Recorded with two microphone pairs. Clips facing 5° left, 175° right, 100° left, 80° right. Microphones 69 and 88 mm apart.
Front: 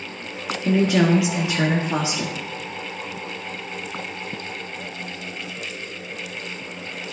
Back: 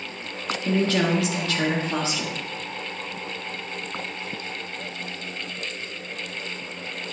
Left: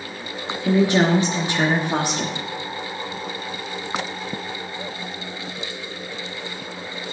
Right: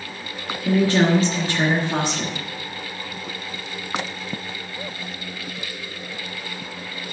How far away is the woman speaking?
About 1.2 m.